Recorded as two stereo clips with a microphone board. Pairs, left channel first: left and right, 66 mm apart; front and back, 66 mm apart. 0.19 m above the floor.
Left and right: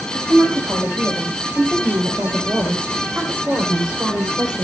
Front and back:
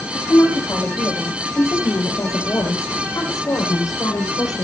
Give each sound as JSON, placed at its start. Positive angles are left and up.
{"t": 0.1, "sound": "a woman speaking", "azimuth_deg": -40, "distance_m": 5.0}